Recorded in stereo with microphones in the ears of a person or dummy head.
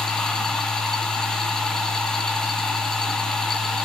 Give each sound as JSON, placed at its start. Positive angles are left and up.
{"t": 0.0, "sound": "a machine running", "side_deg": 0, "distance_m": 2.5}